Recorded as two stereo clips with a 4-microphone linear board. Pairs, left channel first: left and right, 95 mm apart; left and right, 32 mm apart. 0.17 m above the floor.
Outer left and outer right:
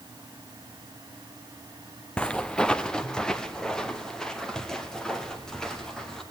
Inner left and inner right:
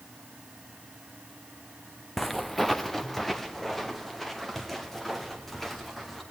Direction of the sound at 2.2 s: 10° left (ahead or behind).